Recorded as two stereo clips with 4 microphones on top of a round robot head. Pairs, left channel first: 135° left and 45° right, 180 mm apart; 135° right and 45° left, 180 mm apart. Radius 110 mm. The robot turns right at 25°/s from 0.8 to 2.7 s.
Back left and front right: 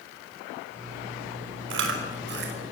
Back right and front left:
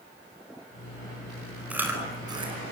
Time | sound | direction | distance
1.7 | chewing | 40° right | 5 m